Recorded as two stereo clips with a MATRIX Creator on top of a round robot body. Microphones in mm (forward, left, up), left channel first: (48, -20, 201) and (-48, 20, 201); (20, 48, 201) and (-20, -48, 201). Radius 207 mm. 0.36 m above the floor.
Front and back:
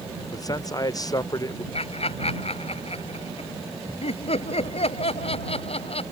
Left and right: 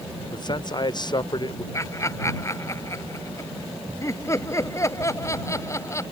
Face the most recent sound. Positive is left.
turn(degrees=5)